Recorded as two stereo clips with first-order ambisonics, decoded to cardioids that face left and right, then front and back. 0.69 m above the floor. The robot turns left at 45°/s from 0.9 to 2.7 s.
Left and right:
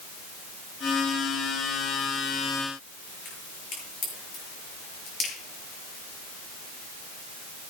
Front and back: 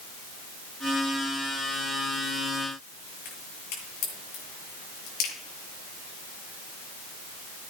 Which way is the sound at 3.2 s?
25° left.